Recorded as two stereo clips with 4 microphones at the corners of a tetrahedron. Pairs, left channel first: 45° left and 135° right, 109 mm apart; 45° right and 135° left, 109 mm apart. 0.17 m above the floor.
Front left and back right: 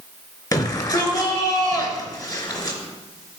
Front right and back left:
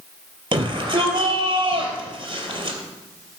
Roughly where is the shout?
Left.